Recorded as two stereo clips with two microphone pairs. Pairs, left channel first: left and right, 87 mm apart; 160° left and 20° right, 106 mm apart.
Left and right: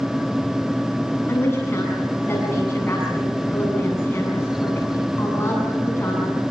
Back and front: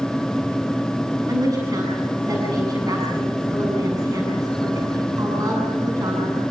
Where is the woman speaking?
30° left, 8 m.